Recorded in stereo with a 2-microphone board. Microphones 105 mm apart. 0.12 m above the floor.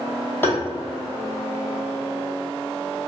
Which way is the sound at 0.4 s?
20° left (ahead or behind).